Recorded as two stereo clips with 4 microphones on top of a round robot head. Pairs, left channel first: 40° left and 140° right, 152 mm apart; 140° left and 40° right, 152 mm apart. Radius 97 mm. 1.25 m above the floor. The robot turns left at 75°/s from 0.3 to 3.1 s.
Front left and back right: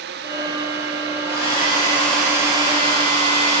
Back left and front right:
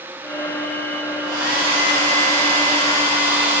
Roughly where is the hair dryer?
Ahead left.